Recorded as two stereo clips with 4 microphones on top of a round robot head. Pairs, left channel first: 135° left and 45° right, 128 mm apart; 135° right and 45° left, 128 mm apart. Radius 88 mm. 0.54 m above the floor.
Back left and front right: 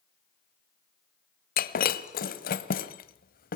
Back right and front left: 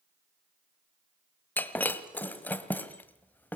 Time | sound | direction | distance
1.6 | breaking glass | 145° left | 1.4 m